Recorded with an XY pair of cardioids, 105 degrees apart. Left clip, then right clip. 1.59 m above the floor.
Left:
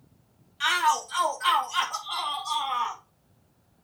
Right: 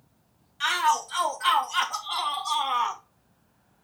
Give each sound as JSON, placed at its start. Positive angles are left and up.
{"t": 0.6, "sound": "a shout", "azimuth_deg": -5, "distance_m": 2.5}